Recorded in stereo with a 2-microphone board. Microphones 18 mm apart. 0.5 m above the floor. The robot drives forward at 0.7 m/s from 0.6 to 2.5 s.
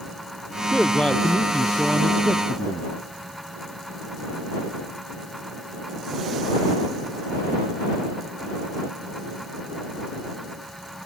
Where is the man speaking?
65° left (ahead or behind); by 2.9 s 60° left (ahead or behind).